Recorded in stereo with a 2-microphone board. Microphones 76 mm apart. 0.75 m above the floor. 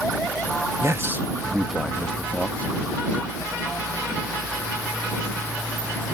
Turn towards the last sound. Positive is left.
turn(degrees=30)  # may be behind; listen again after turning